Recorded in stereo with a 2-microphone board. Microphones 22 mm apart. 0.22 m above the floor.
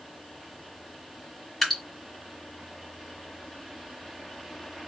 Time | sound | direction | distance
1.6 | dripping | centre (ahead or behind) | 1.8 m